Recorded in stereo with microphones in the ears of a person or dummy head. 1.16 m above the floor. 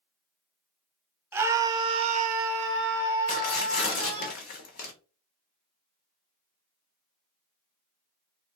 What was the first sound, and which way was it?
A scream, 15° right (ahead or behind).